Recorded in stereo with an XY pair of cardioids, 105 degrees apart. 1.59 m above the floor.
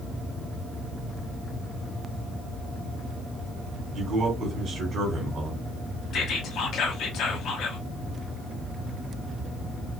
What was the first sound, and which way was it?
A man speaking, 50° right.